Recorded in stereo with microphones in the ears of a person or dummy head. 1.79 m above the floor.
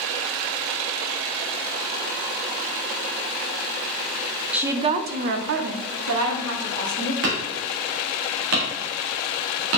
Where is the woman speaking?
5° right (ahead or behind), 0.7 m; by 7.1 s 85° right, 2 m.